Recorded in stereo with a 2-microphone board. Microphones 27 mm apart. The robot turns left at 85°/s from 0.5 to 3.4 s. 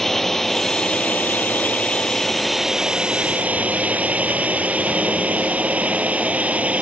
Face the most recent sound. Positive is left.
turn(degrees=-60)  # may be behind; listen again after turning